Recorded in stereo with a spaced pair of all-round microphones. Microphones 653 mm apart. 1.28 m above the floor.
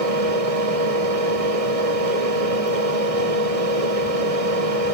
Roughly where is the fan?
Right.